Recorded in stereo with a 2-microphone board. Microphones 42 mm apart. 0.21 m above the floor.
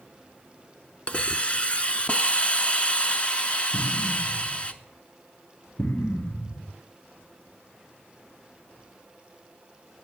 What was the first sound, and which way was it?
A hiss, 30° left (ahead or behind).